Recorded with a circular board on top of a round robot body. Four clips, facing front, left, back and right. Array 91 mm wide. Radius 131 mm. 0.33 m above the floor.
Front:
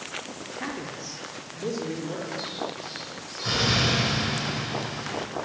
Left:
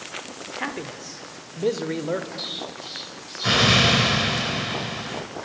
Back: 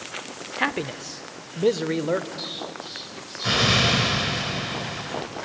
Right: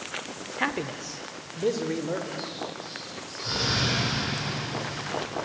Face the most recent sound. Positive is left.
turn(degrees=110)